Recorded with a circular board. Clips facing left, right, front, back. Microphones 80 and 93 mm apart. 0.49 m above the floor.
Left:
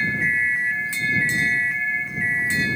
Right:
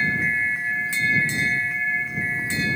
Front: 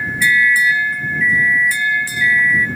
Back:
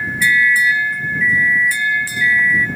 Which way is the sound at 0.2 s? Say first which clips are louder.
Left 2 dB, even; 90° left.